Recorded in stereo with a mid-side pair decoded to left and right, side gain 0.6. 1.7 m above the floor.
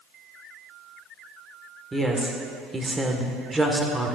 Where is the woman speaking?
15° right, 1.4 m.